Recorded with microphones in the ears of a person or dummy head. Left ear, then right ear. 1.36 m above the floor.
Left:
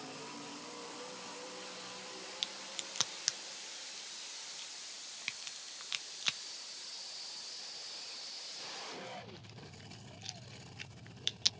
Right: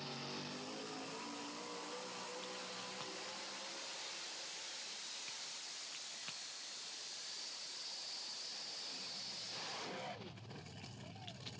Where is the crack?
65° left (ahead or behind), 0.6 m.